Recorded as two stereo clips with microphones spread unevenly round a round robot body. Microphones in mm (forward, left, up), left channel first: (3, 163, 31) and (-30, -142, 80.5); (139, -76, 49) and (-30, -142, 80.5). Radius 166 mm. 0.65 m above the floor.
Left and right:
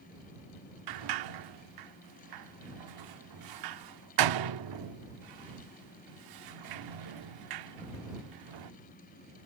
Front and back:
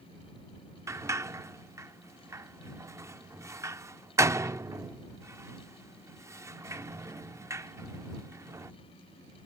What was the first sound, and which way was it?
A sliding door, 80° right.